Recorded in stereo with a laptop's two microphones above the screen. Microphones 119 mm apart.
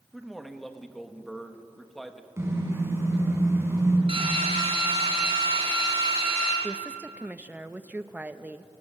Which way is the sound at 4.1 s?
55° right (ahead or behind).